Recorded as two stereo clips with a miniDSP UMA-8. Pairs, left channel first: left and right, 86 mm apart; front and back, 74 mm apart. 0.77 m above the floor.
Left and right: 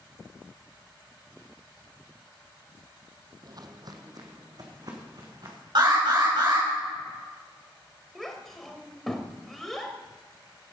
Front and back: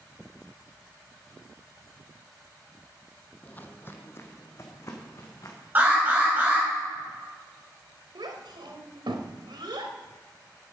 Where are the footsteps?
65° right, 1.2 m; by 5.5 s 50° right, 3.5 m.